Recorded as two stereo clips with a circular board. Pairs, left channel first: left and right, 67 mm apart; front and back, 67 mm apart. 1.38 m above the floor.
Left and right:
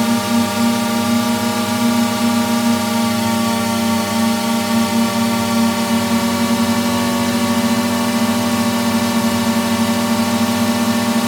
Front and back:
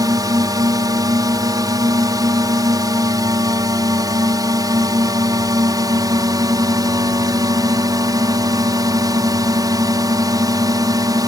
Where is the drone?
Straight behind.